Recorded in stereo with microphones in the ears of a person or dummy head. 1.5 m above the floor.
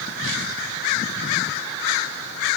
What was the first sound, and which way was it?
Only background noise.